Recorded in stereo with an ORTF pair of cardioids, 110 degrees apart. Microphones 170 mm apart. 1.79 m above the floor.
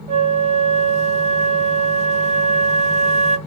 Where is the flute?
40° right, 0.6 m.